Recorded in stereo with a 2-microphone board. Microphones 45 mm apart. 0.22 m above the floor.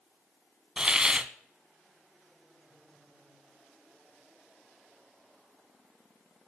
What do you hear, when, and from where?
0.8 s a hiss: 20° right (ahead or behind), 0.7 m